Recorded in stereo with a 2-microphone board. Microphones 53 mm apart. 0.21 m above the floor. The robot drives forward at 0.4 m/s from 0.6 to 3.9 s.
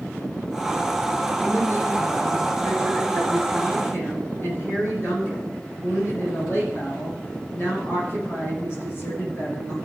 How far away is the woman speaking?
About 7.5 m.